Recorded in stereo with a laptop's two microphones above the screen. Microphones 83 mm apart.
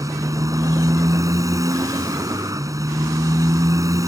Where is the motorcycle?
45° right (ahead or behind).